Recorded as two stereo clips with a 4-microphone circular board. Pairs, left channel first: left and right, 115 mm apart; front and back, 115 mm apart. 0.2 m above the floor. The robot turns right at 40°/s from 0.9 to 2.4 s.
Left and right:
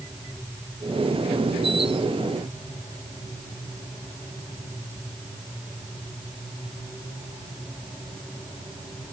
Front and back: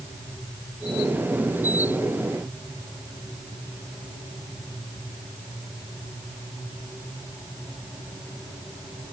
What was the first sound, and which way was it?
Only background noise.